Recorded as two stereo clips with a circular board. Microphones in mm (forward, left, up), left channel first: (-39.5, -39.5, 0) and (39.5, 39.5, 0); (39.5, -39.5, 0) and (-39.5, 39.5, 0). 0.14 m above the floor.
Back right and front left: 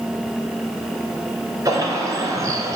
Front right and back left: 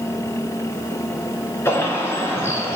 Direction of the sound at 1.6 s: 5° left.